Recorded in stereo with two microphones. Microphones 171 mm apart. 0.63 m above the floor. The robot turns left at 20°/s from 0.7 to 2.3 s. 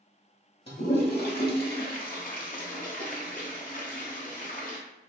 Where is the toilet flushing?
75° left (ahead or behind), 0.7 m; by 4.8 s 55° left (ahead or behind), 0.7 m.